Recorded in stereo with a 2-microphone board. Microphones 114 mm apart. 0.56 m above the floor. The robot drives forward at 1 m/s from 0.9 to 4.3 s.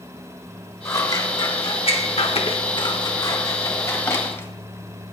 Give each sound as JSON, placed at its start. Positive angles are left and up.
{"t": 0.8, "sound": "scissors", "side_deg": 35, "distance_m": 1.6}